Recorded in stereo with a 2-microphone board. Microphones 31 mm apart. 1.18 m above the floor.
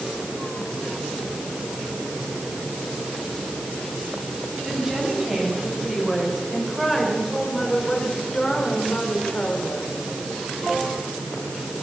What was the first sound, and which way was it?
A woman speaking, 20° right (ahead or behind).